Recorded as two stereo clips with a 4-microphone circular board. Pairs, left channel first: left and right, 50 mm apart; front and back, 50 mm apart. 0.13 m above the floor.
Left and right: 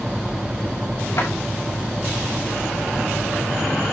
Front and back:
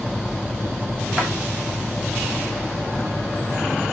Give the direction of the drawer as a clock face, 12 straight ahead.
8 o'clock.